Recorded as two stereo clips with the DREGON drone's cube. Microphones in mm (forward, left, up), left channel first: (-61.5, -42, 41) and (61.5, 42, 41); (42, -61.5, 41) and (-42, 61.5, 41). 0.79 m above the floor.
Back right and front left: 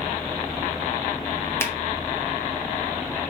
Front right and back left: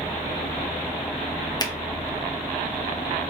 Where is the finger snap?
90° right, 0.7 m.